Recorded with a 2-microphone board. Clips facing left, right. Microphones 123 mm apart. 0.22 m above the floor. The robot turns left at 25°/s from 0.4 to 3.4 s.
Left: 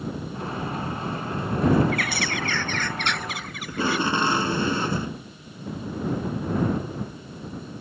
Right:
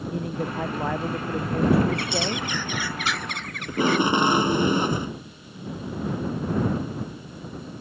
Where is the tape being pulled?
20° right (ahead or behind).